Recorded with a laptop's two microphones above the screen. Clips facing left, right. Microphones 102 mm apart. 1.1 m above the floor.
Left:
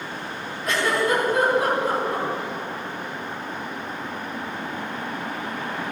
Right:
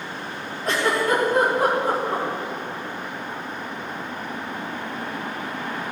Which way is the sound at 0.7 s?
30° right (ahead or behind).